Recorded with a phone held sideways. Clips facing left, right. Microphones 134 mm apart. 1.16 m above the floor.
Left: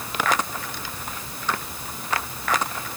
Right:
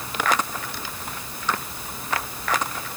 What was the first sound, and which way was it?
Only background noise.